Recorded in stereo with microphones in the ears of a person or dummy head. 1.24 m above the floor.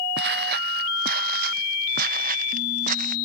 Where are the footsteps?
65° right (ahead or behind); by 3.1 s 55° right (ahead or behind).